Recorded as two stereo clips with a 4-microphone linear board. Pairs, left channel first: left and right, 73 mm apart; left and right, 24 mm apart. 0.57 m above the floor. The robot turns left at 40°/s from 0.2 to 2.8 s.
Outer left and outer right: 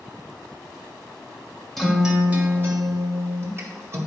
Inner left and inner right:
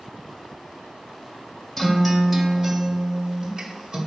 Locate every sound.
1.8 s a guitar: straight ahead, 1.8 m; by 4.0 s 40° right, 1.8 m